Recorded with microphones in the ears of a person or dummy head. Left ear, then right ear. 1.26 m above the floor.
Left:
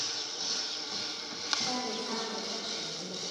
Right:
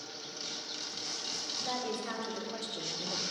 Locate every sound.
1.6 s a woman speaking: 65° right (ahead or behind), 4 m; by 3.2 s 80° right, 2 m